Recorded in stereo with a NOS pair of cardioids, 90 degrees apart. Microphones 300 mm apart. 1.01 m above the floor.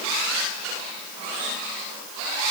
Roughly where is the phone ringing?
I don't hear a phone ringing.